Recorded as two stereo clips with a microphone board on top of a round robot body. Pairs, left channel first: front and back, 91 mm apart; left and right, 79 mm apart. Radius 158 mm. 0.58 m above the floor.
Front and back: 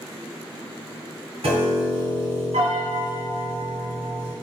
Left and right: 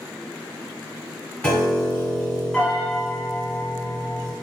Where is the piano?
165° left, 2.0 m.